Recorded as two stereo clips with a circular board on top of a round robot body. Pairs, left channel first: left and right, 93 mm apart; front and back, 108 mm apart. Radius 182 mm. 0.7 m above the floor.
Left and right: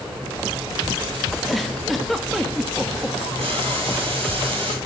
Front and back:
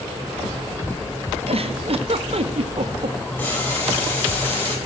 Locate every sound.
1.5 s a giggle: straight behind, 1.9 m
3.4 s boiling: 70° right, 9 m